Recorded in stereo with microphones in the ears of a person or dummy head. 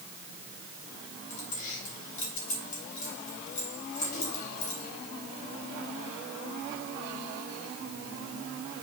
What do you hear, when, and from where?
1.3 s keys jangling: 45° left (ahead or behind), 3 m